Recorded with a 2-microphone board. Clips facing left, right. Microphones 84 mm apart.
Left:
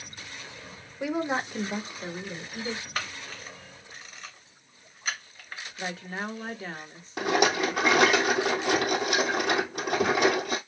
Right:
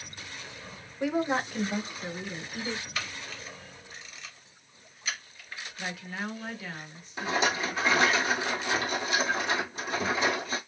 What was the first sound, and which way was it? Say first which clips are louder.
A woman speaking: right 1 dB; 5° left (ahead or behind).